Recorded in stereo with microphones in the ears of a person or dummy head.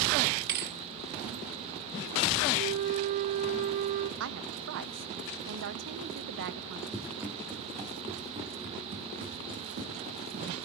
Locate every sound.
0.5 s a thud: 55° right (ahead or behind), 1.7 m
2.5 s a flute: 40° right (ahead or behind), 1.3 m
4.2 s a woman speaking: 60° right (ahead or behind), 1.2 m
6.9 s running footsteps: centre (ahead or behind), 2 m; by 10.5 s 45° right (ahead or behind), 3.5 m